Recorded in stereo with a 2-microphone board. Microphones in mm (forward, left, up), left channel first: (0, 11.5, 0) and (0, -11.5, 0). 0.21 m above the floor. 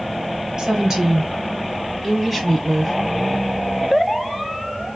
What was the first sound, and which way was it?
A woman speaking, 35° right (ahead or behind).